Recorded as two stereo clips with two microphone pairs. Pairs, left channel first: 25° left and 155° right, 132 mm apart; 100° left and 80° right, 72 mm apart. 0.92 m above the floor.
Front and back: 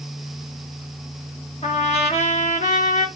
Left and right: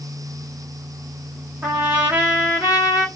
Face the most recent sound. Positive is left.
turn(degrees=-10)